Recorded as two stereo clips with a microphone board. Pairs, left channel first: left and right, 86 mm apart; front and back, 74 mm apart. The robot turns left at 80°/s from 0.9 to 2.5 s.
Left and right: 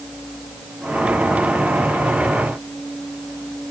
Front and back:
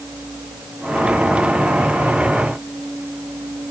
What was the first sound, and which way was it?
Only background noise.